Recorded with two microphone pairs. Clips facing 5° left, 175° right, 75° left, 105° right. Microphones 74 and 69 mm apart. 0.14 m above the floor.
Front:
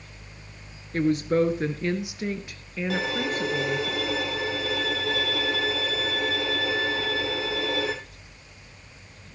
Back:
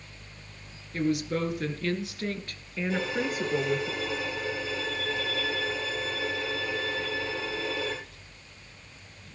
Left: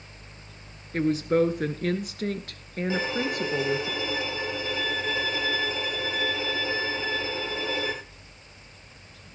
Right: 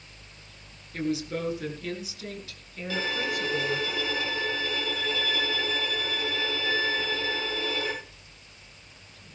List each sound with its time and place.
0.9 s a woman speaking: 40° left, 2 m; by 3.9 s 110° left, 2.5 m
2.9 s a violin: 5° left, 3.5 m